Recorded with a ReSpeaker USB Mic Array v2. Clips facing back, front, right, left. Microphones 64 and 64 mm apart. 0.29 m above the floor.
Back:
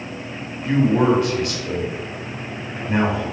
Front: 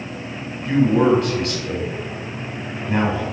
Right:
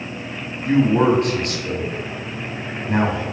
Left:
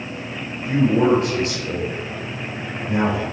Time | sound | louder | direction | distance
0.7 | a man speaking | front 1 dB, right 1 dB | 100° right | 1.4 m